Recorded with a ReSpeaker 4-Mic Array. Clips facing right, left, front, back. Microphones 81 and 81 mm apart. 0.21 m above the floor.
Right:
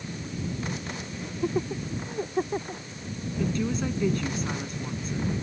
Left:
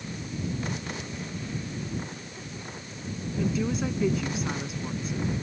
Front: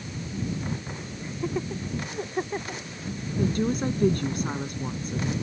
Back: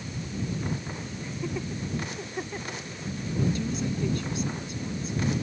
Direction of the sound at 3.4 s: 5° left.